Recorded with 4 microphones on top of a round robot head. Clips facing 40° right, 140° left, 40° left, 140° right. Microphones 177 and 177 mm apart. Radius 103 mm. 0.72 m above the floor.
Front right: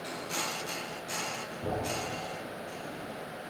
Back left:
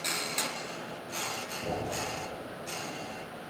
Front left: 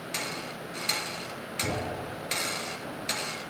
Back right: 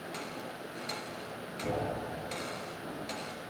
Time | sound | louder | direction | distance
1.6 | a thud | front right 1 dB, front left 1 dB | 40° left | 1.9 m